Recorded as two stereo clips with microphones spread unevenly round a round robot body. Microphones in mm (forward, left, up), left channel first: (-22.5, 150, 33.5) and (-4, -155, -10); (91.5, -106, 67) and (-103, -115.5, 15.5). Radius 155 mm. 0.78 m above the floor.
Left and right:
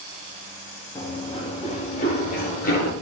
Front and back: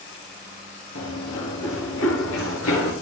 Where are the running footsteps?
15° left, 5 m; by 2.9 s 30° left, 6 m.